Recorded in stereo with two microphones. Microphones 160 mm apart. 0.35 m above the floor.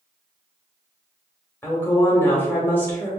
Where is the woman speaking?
15° left (ahead or behind), 1.2 m.